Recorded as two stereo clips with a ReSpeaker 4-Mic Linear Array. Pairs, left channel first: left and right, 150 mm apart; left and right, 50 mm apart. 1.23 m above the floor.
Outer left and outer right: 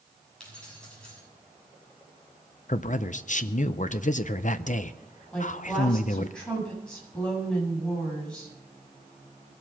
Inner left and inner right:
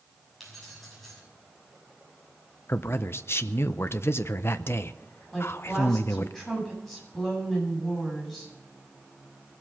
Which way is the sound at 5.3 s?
5° left (ahead or behind).